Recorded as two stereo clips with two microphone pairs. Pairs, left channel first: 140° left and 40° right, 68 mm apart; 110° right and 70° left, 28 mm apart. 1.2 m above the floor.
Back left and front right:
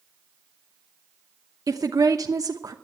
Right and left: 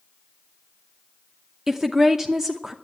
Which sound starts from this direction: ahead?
A woman speaking, at 1.7 s.